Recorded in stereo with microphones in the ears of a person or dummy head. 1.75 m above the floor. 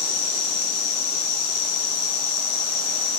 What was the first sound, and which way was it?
An insect, 55° left (ahead or behind).